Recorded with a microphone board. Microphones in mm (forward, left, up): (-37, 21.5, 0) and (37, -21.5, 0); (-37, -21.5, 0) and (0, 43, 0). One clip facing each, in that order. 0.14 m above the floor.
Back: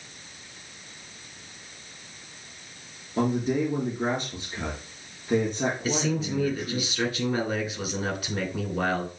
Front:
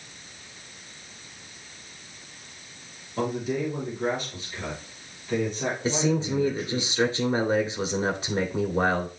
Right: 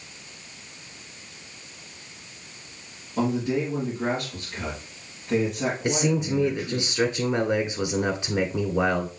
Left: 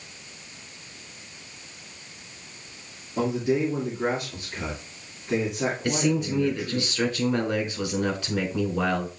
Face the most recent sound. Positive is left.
turn(degrees=-70)